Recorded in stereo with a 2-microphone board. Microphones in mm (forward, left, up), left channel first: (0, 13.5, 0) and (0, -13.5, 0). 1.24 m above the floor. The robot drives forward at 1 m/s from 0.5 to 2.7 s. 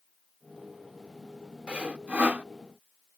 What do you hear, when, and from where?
1.7 s sawing: 50° right (ahead or behind); by 2.5 s 60° right (ahead or behind)